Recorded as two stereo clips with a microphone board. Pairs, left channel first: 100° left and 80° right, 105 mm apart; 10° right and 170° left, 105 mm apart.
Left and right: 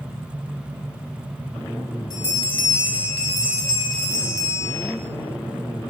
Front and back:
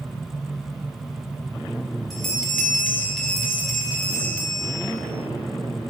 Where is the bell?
75° left, 1.8 m.